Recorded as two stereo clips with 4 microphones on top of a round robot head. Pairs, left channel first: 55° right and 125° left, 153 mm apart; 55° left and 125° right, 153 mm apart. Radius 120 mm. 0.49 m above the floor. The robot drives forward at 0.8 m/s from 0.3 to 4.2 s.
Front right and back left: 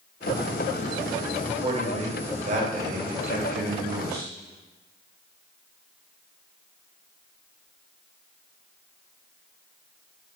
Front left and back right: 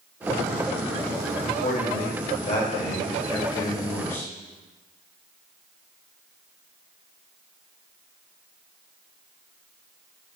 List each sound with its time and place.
1.4 s a man speaking: 75° left, 2.5 m; by 4.3 s 125° left, 3 m